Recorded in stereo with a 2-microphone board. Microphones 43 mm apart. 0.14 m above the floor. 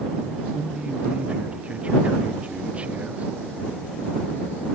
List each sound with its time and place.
0.5 s a man speaking: 30° right (ahead or behind)